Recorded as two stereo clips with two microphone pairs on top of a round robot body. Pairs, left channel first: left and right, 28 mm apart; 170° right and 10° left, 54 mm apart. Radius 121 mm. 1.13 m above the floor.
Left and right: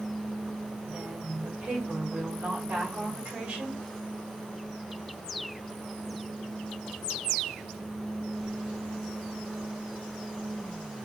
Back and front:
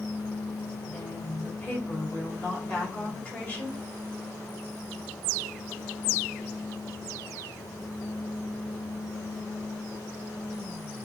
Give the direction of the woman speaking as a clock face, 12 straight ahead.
4 o'clock.